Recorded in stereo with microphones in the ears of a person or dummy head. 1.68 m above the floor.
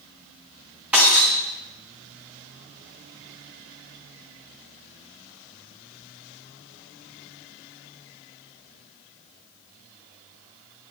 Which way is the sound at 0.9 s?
5° right (ahead or behind).